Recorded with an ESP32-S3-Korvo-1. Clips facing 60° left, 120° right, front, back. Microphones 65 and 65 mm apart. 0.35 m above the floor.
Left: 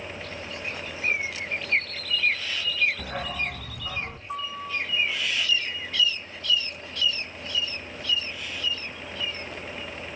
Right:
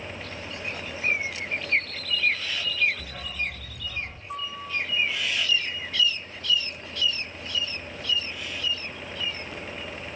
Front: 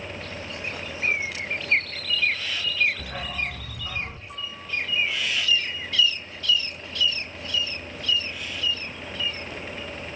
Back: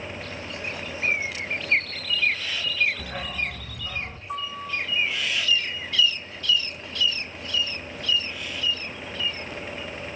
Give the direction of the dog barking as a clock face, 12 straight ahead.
9 o'clock.